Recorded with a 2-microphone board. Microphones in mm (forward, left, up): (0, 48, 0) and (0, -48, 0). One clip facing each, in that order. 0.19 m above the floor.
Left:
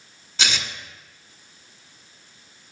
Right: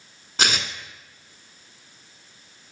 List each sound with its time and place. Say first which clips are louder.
0.4 s tearing paper: right 3 dB; 50° right (ahead or behind), 0.9 m